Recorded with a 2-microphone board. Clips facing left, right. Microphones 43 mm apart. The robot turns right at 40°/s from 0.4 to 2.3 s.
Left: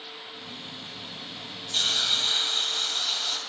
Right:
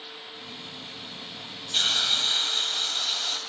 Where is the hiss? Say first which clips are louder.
Right 1 dB; 25° right (ahead or behind), 0.8 m; by 3.4 s centre (ahead or behind), 0.8 m.